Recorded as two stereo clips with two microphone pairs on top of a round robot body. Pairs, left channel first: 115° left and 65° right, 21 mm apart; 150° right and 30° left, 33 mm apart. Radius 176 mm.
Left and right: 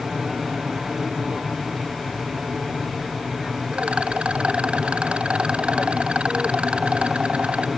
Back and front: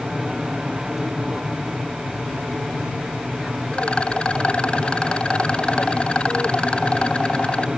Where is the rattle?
95° right.